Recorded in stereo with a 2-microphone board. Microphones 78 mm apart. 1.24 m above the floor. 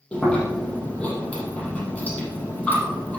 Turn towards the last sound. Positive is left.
turn(degrees=20)  # may be behind; listen again after turning